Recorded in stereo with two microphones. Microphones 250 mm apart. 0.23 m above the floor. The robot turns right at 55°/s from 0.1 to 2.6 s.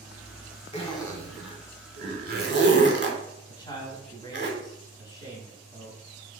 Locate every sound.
0.7 s a zipper: 25° left (ahead or behind), 0.8 m; by 4.5 s 45° right (ahead or behind), 0.8 m
3.5 s a man speaking: 15° left (ahead or behind), 1.2 m